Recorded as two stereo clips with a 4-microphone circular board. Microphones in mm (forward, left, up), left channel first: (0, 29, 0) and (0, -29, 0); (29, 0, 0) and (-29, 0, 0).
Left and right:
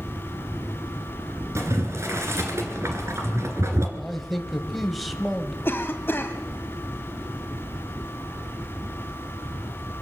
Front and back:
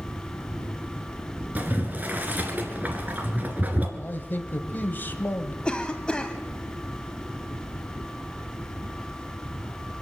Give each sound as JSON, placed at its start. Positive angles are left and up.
{"t": 1.6, "sound": "boiling", "azimuth_deg": -120, "distance_m": 2.0}
{"t": 4.0, "sound": "a man speaking", "azimuth_deg": 5, "distance_m": 1.1}
{"t": 5.7, "sound": "a cough", "azimuth_deg": 65, "distance_m": 1.9}